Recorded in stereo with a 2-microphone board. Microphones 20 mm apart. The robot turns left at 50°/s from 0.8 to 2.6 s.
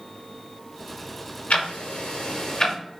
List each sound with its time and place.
1.5 s ticking: 80° left, 0.8 m; by 2.8 s 40° left (ahead or behind), 0.8 m